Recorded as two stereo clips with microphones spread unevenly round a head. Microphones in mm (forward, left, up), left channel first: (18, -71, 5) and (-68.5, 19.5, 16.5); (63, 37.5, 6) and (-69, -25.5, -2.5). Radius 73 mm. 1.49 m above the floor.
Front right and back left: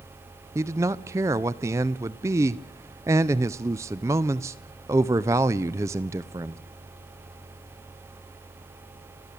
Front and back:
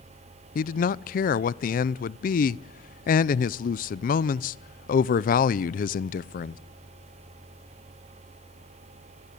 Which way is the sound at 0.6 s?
60° left.